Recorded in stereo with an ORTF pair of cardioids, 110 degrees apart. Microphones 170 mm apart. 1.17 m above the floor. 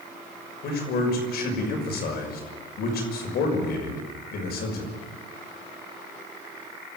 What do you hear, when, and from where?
0.6 s a man speaking: 70° left, 6 m